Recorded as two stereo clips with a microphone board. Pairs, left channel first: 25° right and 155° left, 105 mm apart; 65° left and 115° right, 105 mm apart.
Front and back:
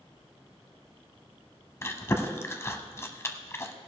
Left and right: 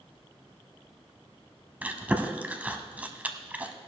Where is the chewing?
55° right, 0.9 m.